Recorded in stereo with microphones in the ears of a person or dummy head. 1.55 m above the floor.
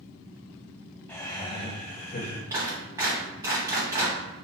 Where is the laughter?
10° left (ahead or behind), 0.9 m; by 2.4 s 55° left (ahead or behind), 1.1 m.